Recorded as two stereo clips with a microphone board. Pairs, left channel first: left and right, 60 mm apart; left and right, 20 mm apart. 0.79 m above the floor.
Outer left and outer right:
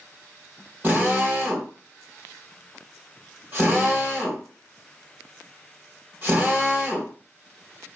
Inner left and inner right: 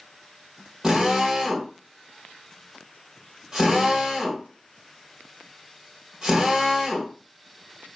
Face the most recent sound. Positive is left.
turn(degrees=-35)  # may be behind; listen again after turning